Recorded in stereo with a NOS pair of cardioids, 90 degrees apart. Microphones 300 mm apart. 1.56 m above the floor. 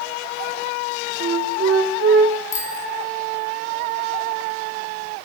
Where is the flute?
45° right, 3 m.